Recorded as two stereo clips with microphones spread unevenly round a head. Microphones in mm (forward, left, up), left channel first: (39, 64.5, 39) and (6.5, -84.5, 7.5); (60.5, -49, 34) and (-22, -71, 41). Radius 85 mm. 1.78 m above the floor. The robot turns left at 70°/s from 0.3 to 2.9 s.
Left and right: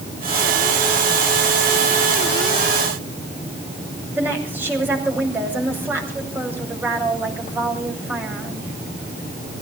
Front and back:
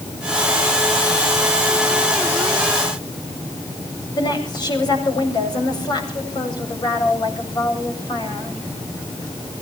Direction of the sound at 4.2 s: 25° right.